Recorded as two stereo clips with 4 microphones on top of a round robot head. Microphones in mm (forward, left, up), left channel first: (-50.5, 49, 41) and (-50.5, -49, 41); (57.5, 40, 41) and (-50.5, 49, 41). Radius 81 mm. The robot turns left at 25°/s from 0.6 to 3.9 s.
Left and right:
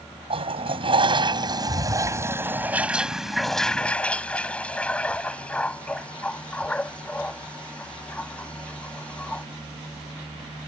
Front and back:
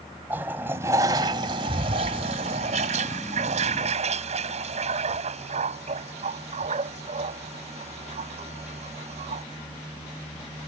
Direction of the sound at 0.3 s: 110° right.